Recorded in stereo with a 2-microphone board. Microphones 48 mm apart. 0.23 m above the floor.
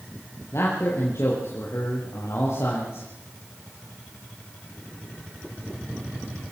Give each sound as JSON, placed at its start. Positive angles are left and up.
{"t": 0.5, "sound": "a man speaking", "side_deg": 65, "distance_m": 5.5}